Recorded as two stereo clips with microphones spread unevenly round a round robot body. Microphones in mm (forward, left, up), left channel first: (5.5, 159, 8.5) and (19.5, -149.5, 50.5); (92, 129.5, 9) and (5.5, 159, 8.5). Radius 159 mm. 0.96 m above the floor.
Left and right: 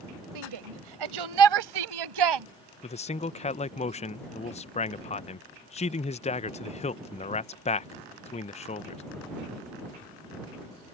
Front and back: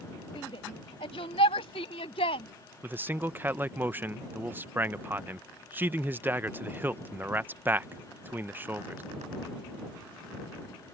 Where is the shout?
80° right.